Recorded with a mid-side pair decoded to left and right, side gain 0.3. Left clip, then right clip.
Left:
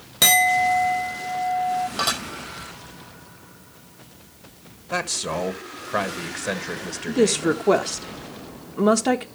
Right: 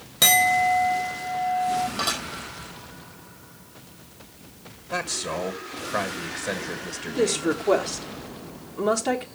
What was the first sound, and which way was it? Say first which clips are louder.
A clink: left 1 dB; 25° left.